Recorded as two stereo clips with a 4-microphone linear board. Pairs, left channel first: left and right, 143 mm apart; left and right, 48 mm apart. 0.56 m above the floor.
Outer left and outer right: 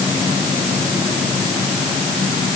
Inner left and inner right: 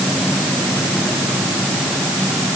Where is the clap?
I don't hear a clap.